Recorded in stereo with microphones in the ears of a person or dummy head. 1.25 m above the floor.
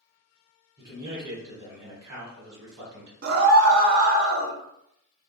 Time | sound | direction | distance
0.8 | a man speaking | 20° right (ahead or behind) | 1.2 m
3.2 | a scream | 55° right (ahead or behind) | 0.6 m